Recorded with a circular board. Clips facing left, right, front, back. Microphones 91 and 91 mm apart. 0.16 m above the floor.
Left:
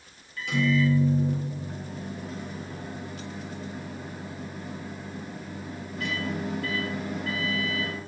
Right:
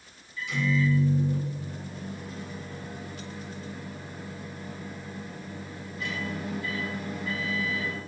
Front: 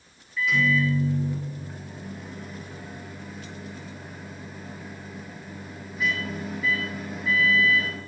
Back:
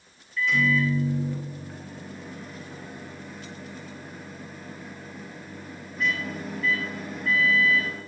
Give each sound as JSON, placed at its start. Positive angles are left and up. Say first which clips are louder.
{"t": 0.4, "sound": "a microwave", "louder": "left 3 dB, even", "azimuth_deg": 85, "distance_m": 2.5}